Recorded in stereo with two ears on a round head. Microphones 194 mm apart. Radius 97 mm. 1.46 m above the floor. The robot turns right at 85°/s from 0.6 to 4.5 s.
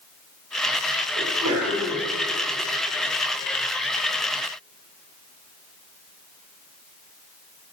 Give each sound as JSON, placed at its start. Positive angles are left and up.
{"t": 1.2, "sound": "a sneeze", "azimuth_deg": -110, "distance_m": 5.0}